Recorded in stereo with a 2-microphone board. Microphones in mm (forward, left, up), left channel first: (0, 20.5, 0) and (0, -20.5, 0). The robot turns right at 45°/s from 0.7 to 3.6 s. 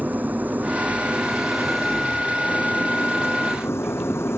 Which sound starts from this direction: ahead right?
An engine running, at 0.0 s.